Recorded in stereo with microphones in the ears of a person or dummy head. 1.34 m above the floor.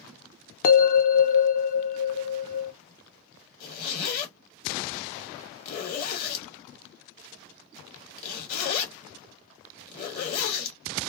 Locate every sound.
0.6 s a bell: 50° left (ahead or behind), 0.5 m
3.6 s a zipper: 50° left (ahead or behind), 1.7 m